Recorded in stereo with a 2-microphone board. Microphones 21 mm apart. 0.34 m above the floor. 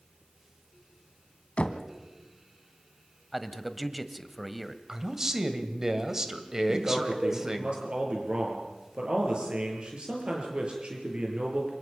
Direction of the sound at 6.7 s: 50° right (ahead or behind).